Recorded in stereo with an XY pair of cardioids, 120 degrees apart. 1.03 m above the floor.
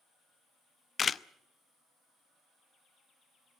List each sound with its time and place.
1.0 s a camera shutter: 35° left, 0.5 m